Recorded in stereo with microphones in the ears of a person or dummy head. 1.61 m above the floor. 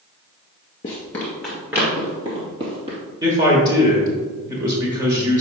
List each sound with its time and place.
0.8 s running footsteps: 20° left (ahead or behind), 1.7 m; by 3.0 s 35° right (ahead or behind), 3 m
3.2 s a man speaking: 20° right (ahead or behind), 1.3 m